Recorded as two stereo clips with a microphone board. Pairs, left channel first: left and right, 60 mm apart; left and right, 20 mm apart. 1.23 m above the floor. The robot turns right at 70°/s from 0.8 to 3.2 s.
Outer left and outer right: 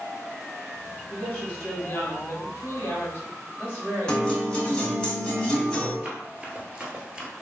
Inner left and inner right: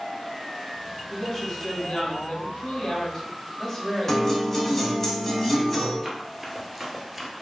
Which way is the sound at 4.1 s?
15° left (ahead or behind).